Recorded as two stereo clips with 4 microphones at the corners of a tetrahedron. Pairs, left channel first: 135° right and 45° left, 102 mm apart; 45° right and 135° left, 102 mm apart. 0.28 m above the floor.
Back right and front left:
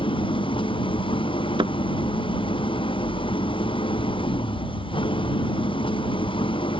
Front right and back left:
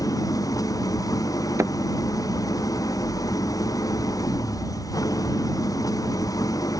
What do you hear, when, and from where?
0.0 s an engine running: 100° right
1.6 s a thud: 75° left